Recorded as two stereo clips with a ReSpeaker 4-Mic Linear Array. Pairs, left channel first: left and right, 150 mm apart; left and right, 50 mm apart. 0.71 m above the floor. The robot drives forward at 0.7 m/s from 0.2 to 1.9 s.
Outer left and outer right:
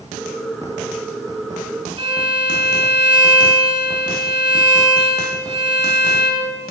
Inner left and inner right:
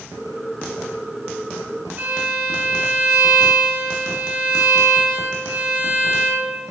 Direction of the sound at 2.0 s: 35° right (ahead or behind).